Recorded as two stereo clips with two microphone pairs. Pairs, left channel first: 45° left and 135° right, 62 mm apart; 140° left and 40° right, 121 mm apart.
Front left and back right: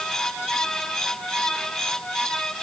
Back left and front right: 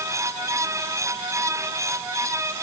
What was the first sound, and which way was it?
Only background noise.